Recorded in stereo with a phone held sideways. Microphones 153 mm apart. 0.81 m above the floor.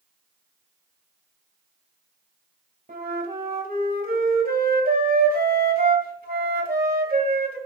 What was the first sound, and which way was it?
A flute, 85° right.